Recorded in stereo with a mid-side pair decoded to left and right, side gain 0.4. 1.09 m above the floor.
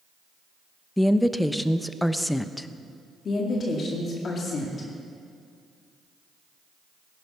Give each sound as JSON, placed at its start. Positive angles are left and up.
{"t": 1.0, "sound": "a woman speaking", "azimuth_deg": 5, "distance_m": 0.8}
{"t": 3.2, "sound": "a woman speaking", "azimuth_deg": 55, "distance_m": 2.5}